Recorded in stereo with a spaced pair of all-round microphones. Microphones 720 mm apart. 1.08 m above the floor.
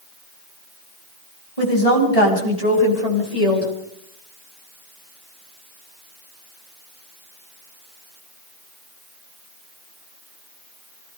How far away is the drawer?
No drawer in this recording.